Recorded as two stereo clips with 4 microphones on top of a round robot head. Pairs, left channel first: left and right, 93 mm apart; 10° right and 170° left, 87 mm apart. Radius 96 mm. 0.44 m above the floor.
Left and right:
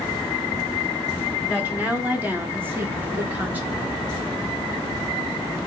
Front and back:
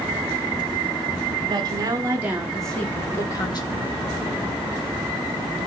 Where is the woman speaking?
165° right, 1.6 m; by 3.8 s 20° right, 1.6 m.